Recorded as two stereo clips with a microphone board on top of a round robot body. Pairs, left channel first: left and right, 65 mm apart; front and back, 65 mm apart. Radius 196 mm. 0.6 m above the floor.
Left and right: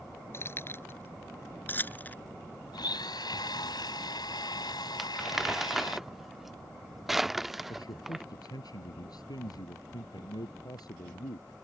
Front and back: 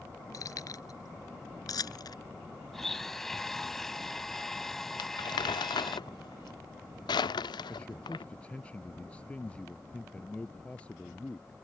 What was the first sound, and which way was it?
Keys jangling, 40° left.